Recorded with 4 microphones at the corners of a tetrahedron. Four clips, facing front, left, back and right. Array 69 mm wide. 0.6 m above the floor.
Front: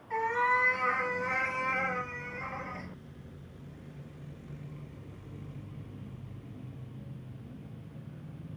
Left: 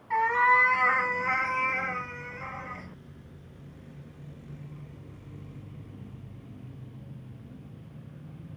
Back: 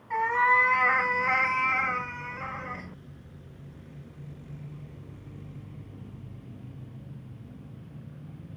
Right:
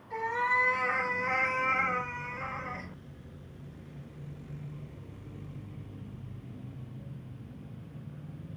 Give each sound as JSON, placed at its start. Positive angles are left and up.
{"t": 0.1, "sound": "a cat meowing", "azimuth_deg": 120, "distance_m": 1.7}